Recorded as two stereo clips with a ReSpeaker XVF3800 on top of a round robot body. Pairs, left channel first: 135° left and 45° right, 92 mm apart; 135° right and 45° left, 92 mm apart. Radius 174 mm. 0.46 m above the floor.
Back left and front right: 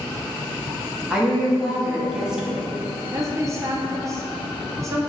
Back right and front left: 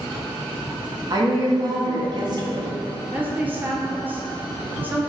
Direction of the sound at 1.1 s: 35° left.